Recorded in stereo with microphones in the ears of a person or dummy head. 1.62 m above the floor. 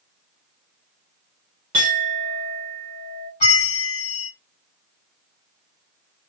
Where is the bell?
40° left (ahead or behind), 1.1 m.